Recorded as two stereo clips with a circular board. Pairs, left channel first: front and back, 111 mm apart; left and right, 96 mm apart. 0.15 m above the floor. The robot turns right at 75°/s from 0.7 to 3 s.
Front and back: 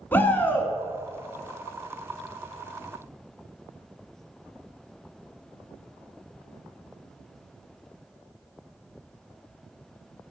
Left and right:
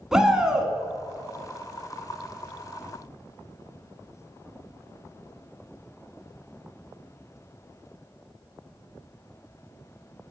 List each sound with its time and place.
0.1 s a shout: 20° right, 1.0 m